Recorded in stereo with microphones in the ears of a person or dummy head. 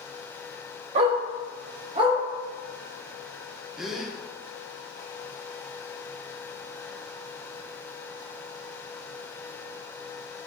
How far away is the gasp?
About 0.5 m.